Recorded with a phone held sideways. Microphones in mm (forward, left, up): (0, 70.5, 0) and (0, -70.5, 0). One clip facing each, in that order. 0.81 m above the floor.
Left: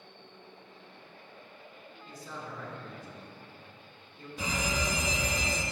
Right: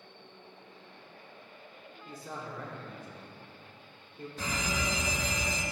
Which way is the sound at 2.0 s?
50° right (ahead or behind).